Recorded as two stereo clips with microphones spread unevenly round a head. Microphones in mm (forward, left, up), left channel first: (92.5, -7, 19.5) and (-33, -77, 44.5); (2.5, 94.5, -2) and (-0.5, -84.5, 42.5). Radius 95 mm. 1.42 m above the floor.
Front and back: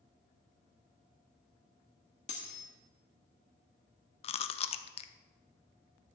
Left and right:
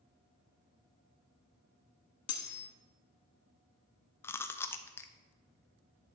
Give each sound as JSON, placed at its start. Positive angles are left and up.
{"t": 2.3, "sound": "cutlery clinking", "azimuth_deg": 85, "distance_m": 1.3}
{"t": 4.2, "sound": "chewing", "azimuth_deg": -5, "distance_m": 0.5}